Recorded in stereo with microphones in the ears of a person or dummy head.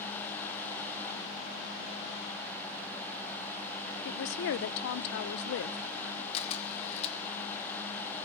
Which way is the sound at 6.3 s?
40° left (ahead or behind).